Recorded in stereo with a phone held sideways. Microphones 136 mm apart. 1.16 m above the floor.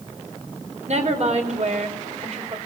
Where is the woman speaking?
55° right (ahead or behind), 5 m.